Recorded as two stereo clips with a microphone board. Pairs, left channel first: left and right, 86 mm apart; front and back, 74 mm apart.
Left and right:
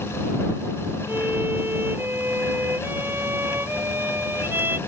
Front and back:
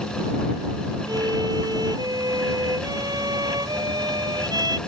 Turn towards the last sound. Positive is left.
turn(degrees=-155)